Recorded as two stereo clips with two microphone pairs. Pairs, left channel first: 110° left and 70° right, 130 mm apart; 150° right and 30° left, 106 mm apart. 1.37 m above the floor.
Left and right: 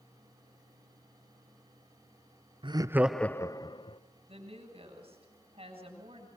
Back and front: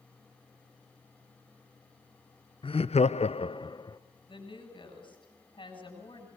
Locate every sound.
2.6 s laughter: 115° right, 0.6 m; by 4.0 s 155° left, 1.0 m
4.3 s a woman speaking: 110° right, 7 m